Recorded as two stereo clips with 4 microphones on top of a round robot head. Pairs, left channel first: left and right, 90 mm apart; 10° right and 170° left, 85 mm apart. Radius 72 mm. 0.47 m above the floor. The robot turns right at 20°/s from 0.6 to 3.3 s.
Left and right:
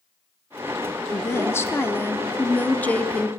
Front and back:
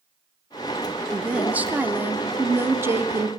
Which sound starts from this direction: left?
A woman speaking, at 1.1 s.